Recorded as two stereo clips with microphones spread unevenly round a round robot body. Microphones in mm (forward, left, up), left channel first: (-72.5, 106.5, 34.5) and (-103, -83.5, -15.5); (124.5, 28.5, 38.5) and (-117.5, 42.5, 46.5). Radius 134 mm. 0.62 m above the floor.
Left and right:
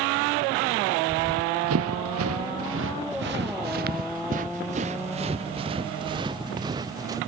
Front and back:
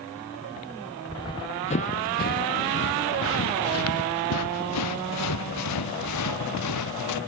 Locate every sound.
1.1 s running footsteps: 80° right; by 7.2 s 20° right